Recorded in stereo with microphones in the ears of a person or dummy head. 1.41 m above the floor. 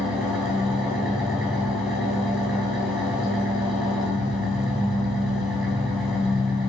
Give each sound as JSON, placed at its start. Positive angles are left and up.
{"t": 0.0, "sound": "an engine running", "side_deg": 10, "distance_m": 2.5}